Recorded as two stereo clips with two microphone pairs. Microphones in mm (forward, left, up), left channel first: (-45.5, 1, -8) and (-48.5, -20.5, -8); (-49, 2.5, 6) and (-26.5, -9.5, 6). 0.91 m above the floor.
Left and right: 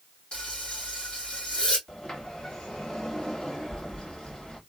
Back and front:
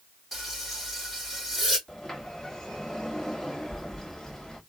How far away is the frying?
About 2 m.